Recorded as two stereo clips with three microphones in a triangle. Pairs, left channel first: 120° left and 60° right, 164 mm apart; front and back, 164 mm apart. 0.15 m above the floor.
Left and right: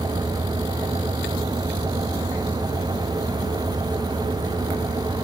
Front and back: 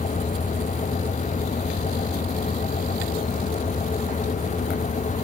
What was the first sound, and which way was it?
Only background noise.